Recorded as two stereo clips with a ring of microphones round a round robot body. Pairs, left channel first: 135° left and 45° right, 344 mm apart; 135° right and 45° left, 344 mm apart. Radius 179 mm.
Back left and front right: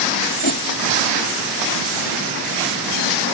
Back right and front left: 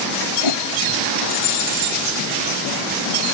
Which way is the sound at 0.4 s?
160° right.